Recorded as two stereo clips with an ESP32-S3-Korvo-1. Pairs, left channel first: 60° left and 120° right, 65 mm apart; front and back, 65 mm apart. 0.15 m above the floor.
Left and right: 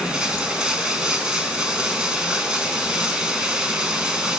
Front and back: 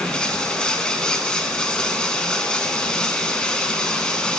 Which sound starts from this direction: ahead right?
Running water, at 0.0 s.